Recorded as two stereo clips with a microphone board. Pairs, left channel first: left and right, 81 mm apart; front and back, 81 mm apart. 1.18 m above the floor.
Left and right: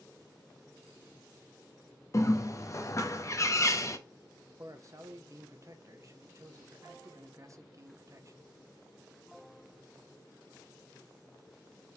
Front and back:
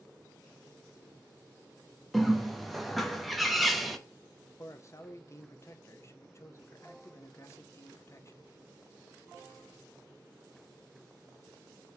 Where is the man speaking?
50° right, 0.6 m.